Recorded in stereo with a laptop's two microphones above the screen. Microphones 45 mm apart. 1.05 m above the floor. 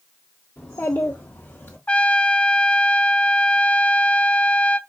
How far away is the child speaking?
About 1.5 m.